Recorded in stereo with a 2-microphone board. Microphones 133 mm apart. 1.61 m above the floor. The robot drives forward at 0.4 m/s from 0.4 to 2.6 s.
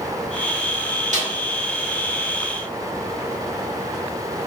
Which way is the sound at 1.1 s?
70° right (ahead or behind).